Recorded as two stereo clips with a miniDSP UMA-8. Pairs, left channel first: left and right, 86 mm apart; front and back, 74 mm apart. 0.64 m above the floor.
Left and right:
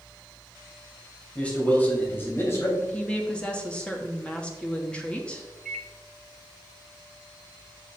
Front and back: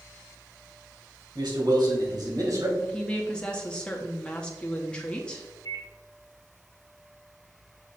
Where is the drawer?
No drawer in this recording.